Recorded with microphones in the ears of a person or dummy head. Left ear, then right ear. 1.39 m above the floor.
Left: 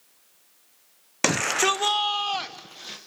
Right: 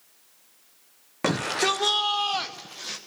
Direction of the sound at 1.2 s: 60° left (ahead or behind).